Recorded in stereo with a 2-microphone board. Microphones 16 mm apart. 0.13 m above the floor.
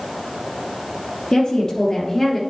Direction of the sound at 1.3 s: 55° left (ahead or behind).